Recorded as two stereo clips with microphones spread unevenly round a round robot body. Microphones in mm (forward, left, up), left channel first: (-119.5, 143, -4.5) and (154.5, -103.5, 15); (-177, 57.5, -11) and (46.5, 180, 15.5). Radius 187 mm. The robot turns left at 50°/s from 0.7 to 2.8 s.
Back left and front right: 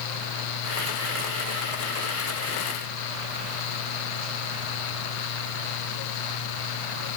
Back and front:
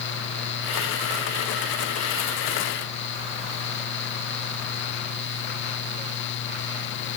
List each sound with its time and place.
Only background noise.